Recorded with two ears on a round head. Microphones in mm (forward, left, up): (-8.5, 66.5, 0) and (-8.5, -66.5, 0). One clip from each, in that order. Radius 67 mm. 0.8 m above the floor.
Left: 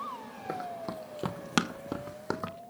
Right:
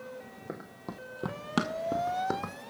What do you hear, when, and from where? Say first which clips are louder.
0.5 s running footsteps: left 8 dB; 50° left (ahead or behind), 1.9 m; by 2.5 s 5° left (ahead or behind), 1.6 m